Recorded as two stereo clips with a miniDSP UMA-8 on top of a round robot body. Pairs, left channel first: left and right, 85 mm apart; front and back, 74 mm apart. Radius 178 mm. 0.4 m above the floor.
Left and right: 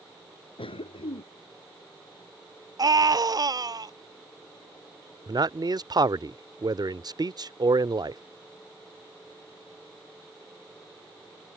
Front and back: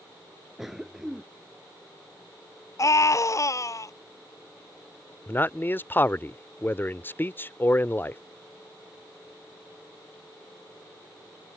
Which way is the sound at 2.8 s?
45° right.